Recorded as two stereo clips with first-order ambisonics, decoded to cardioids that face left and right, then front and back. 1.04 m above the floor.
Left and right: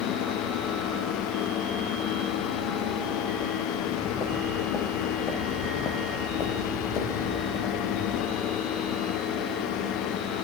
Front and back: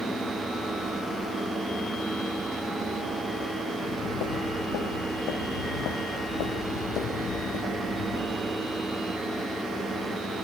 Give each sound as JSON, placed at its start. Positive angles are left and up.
{"t": 3.8, "sound": "footsteps", "azimuth_deg": 25, "distance_m": 4.5}